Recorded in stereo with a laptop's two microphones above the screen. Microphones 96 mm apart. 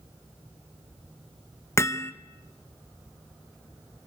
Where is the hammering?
30° left (ahead or behind), 0.7 m.